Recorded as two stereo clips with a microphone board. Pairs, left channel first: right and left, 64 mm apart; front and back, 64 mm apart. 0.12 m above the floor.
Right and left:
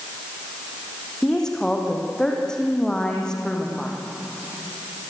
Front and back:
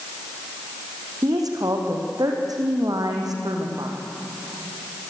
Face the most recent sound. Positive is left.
turn(degrees=-170)